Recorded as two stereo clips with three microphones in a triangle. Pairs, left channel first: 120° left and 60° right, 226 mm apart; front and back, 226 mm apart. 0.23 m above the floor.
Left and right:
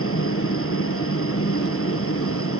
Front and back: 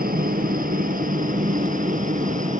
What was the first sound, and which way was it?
A helicopter, 130° left.